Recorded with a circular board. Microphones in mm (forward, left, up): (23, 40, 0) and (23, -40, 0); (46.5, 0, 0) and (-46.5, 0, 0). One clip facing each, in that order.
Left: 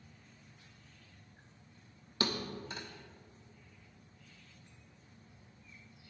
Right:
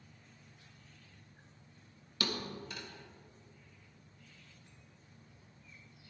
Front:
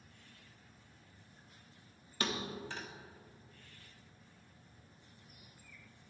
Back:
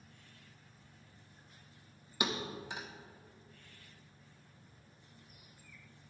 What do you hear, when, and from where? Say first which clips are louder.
2.2 s a thud: left 2 dB, back 1 dB; 115° left, 1.1 m